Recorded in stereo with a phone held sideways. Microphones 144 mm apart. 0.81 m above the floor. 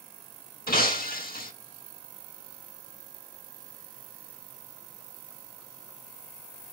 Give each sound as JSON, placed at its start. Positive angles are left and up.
{"t": 0.7, "sound": "breaking glass", "side_deg": 80, "distance_m": 8.5}